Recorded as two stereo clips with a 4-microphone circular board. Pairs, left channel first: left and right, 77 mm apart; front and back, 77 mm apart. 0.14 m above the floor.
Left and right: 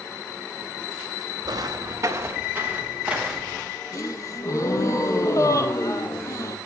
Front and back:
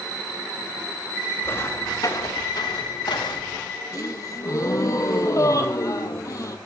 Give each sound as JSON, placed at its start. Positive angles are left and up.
{"t": 1.4, "sound": "footsteps", "azimuth_deg": -60, "distance_m": 2.0}
{"t": 3.9, "sound": "a gasp", "azimuth_deg": 45, "distance_m": 1.1}